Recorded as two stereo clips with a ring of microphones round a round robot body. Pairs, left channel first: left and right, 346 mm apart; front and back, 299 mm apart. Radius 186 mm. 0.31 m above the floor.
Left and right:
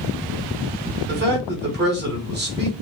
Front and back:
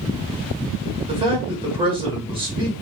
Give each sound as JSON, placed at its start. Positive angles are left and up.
{"t": 1.1, "sound": "a man speaking", "azimuth_deg": -120, "distance_m": 1.3}